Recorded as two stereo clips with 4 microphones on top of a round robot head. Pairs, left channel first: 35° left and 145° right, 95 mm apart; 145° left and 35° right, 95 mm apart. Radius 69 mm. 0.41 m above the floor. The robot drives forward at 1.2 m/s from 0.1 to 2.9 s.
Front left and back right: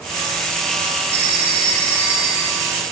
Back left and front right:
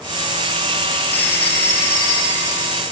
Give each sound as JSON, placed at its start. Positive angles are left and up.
{"t": 1.1, "sound": "a phone ringing", "azimuth_deg": -140, "distance_m": 4.5}